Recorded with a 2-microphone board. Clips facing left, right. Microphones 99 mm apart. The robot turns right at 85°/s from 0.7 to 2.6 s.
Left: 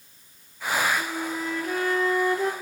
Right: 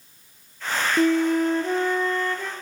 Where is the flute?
90° right, 0.8 m; by 2.5 s 40° left, 0.8 m.